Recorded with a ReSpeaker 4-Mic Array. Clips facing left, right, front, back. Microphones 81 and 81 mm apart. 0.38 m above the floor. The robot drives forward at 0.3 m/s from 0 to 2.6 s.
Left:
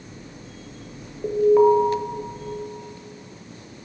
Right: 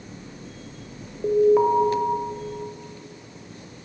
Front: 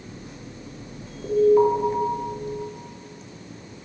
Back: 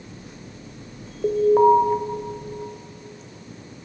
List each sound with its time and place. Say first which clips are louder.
1.2 s an alarm: left 2 dB, back 2 dB; 170° right, 1.1 m